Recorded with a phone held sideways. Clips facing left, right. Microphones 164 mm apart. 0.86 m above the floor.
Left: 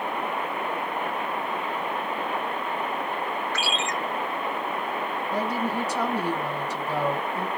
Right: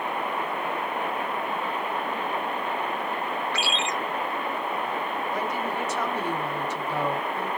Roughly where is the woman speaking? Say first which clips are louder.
Left 5 dB; left.